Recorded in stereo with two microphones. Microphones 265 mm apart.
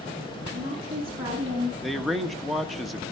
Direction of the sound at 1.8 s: Centre (ahead or behind).